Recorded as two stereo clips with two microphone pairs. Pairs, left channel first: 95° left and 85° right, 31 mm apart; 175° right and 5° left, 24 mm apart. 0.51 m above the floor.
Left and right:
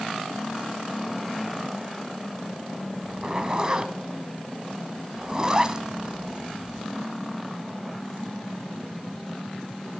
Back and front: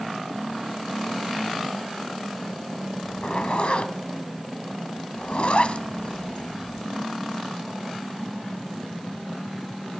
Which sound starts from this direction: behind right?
A zipper, at 3.0 s.